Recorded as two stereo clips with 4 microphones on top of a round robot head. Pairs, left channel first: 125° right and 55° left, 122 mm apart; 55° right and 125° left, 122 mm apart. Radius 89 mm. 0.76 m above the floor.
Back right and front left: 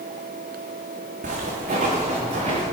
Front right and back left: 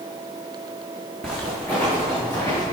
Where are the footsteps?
25° left, 2.5 m; by 2.6 s 10° left, 3.5 m.